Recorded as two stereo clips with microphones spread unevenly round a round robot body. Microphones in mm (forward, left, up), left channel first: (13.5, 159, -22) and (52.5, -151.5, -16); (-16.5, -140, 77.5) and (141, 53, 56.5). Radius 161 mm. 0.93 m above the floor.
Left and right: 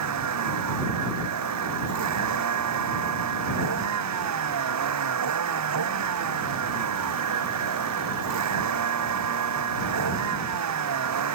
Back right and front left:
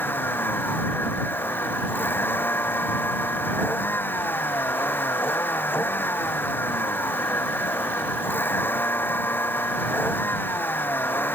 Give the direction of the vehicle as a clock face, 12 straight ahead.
2 o'clock.